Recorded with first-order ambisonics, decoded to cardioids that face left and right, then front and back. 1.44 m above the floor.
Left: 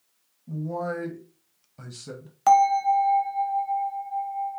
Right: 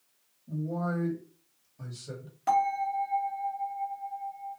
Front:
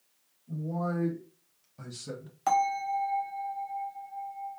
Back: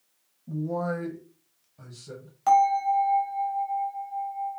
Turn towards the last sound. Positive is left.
turn(degrees=90)